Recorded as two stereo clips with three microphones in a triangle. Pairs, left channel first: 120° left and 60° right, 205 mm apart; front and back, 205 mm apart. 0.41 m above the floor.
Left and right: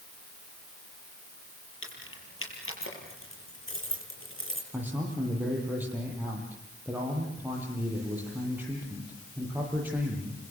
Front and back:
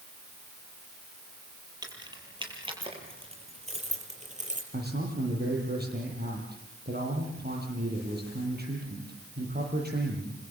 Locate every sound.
1.8 s keys jangling: 110° left, 7.5 m; by 4.6 s 130° left, 6.5 m
4.7 s a man speaking: 140° right, 10 m